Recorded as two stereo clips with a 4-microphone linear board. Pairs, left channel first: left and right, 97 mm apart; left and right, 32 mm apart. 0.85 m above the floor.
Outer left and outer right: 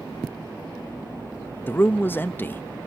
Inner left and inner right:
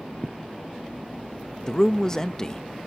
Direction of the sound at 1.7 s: 20° left (ahead or behind).